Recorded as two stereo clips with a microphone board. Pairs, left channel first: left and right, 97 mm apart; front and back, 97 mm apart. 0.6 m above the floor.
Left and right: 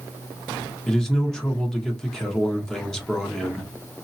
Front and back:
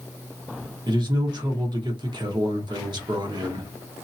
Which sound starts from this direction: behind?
A man speaking, at 0.9 s.